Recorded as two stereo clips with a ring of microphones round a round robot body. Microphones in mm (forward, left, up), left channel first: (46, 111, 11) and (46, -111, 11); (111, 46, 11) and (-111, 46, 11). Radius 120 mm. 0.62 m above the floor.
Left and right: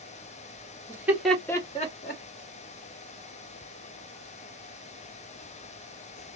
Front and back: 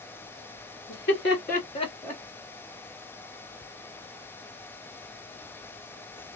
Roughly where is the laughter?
Ahead.